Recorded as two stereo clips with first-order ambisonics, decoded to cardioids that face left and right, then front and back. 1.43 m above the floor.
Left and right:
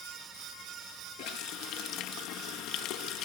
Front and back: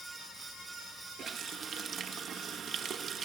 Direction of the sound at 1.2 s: 120° left.